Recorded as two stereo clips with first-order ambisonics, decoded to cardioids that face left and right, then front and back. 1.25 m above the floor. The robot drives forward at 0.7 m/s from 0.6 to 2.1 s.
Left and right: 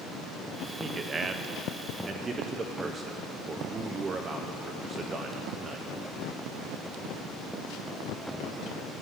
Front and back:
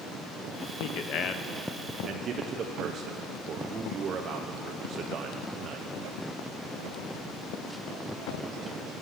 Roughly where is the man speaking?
Ahead.